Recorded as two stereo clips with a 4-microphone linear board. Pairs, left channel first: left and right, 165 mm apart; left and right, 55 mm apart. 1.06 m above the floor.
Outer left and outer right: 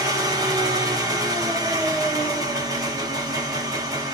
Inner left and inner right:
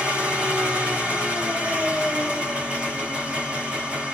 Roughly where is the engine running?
Right.